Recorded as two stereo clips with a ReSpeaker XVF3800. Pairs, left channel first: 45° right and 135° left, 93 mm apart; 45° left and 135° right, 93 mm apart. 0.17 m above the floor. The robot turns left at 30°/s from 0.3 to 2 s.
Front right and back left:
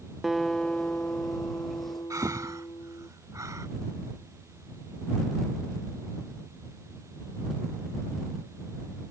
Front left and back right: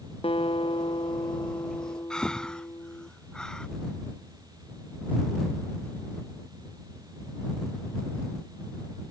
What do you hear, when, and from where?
0.2 s a guitar: 50° left; by 3.1 s 5° right
2.1 s breathing: 120° left